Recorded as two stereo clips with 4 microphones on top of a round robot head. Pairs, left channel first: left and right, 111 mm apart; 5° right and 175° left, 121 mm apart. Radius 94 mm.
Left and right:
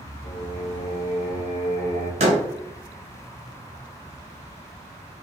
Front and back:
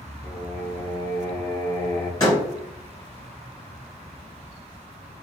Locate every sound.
0.2 s singing: 55° left, 0.9 m
2.2 s a door slam: 75° right, 0.7 m